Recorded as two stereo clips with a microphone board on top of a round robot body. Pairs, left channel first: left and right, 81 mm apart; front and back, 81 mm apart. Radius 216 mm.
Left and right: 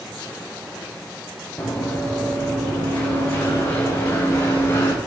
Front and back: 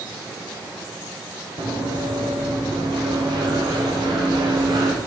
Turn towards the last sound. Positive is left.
turn(degrees=150)